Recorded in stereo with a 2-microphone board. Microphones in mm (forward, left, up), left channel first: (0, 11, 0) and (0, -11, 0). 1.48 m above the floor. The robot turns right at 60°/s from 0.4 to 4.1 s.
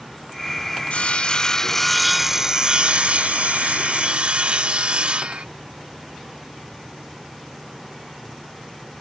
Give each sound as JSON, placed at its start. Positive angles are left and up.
{"t": 0.9, "sound": "sawing", "azimuth_deg": 110}